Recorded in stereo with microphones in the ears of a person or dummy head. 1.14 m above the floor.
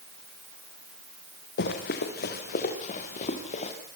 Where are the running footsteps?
65° left (ahead or behind), 4 m; by 3.7 s 40° left (ahead or behind), 5.5 m.